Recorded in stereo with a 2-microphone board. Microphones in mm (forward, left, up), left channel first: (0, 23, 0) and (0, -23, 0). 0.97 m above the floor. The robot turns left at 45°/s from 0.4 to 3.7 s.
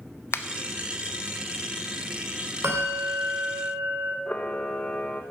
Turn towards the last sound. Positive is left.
turn(degrees=45)  # may be behind; listen again after turning